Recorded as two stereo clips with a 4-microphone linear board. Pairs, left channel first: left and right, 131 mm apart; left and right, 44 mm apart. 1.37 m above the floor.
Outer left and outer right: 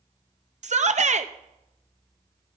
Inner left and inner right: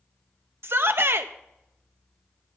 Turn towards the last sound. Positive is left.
turn(degrees=-60)  # may be behind; listen again after turning